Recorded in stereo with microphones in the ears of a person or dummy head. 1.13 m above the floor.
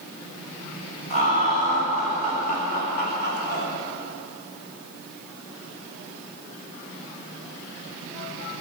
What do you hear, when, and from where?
1.1 s laughter: 45° left (ahead or behind), 5 m; by 3.7 s 60° left (ahead or behind), 3 m